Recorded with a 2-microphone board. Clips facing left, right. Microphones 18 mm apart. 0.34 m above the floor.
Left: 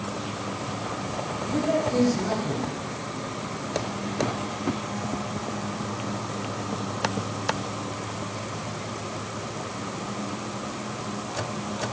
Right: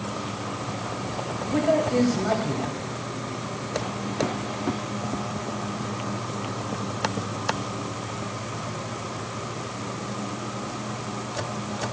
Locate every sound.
1.5 s a man speaking: 40° right (ahead or behind), 1.4 m